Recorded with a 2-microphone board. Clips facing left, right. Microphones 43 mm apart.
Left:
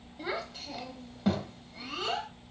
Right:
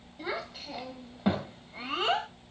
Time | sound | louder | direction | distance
0.2 | a child speaking | even | centre (ahead or behind) | 3.5 m